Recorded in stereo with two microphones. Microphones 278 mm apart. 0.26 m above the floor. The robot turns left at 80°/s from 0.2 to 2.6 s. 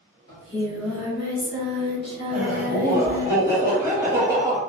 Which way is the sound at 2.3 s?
Centre (ahead or behind).